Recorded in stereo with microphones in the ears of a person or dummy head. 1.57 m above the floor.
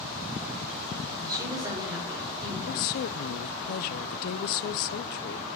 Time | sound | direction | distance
1.2 | a woman speaking | 25° right (ahead or behind) | 6.5 m
2.7 | a woman speaking | 55° left (ahead or behind) | 0.6 m